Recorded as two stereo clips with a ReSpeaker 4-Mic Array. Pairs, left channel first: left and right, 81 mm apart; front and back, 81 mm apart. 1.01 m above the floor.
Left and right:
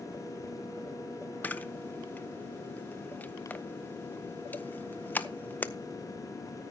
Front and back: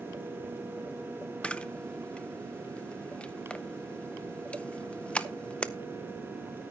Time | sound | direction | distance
1.4 | a camera shutter | 55° left | 0.6 m